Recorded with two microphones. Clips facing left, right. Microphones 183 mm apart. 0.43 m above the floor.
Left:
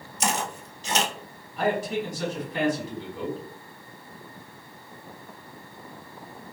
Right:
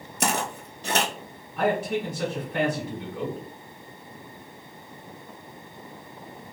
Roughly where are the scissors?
No scissors in this recording.